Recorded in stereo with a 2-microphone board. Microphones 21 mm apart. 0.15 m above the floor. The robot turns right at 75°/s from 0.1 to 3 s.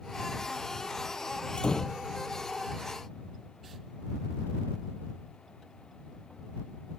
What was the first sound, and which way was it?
A door slam, 65° left.